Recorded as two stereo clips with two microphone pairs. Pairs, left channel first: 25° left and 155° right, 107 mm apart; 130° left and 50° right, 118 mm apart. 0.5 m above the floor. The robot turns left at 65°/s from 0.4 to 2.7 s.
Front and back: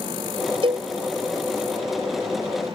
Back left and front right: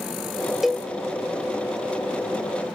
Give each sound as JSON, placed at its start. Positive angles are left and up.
{"t": 0.6, "sound": "a cowbell", "azimuth_deg": -135, "distance_m": 0.6}